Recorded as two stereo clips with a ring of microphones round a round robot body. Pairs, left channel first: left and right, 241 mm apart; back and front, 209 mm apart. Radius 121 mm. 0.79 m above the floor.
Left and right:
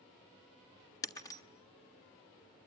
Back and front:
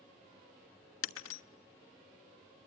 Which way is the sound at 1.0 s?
165° left.